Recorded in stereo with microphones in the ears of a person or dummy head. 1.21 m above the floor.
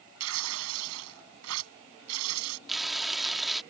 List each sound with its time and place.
0.2 s tearing paper: 85° right
2.7 s frying: centre (ahead or behind)